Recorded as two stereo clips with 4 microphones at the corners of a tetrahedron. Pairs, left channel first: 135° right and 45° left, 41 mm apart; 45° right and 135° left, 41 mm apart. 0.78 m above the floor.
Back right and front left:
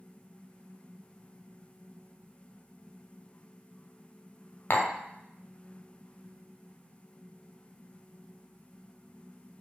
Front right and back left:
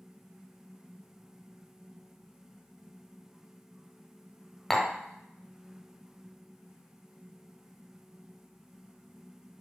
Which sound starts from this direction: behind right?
Tapping, at 4.7 s.